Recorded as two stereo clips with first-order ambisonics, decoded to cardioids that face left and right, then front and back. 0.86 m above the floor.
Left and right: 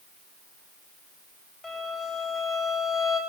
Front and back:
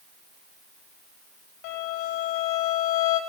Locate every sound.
1.6 s a violin: 10° left, 5 m